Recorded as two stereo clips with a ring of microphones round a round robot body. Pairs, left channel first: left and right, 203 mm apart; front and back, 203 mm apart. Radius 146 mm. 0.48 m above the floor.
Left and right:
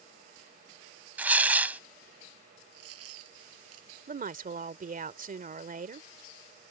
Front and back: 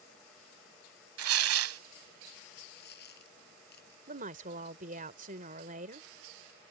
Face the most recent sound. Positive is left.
turn(degrees=-130)